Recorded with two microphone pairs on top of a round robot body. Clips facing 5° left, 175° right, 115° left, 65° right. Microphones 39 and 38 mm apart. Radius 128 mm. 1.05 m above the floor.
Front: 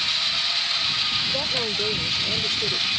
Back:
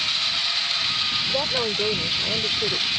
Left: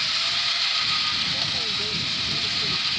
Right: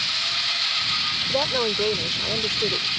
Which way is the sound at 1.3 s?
105° right.